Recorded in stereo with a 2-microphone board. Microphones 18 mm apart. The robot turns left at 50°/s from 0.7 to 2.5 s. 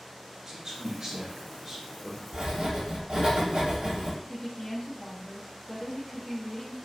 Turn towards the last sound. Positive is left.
turn(degrees=20)  # may be behind; listen again after turning